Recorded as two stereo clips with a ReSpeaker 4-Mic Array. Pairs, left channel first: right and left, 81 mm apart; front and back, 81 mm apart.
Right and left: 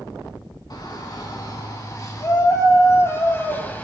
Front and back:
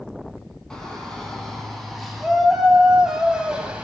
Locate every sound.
0.7 s a shout: 80° right, 2.5 m; by 3.8 s 125° right, 1.4 m